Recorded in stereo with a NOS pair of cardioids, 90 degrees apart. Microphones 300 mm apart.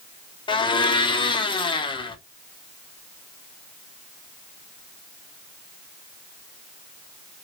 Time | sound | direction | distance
0.5 | a blender | 15° left | 0.6 m